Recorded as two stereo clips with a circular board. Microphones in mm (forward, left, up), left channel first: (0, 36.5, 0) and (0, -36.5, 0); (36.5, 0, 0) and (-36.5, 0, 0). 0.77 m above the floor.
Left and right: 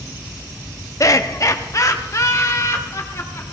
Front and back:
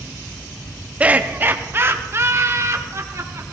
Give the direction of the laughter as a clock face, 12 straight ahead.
8 o'clock.